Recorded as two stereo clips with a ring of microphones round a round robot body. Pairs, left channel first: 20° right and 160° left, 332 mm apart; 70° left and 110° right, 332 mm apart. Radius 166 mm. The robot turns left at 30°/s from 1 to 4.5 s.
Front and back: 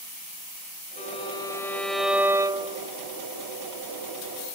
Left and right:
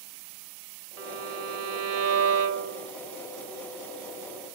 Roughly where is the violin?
Right.